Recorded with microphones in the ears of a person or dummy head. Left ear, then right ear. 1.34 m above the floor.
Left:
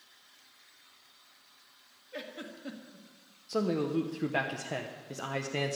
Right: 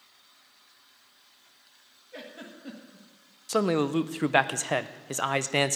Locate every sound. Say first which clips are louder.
2.1 s a giggle: left 1 dB; 5° left (ahead or behind), 1.5 m
3.5 s a man speaking: right 5 dB; 50° right (ahead or behind), 0.6 m